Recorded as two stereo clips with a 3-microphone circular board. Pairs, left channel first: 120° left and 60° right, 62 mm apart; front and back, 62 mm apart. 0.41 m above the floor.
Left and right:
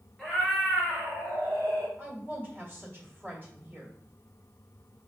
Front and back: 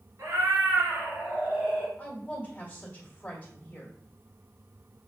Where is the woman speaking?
45° right, 1.5 m.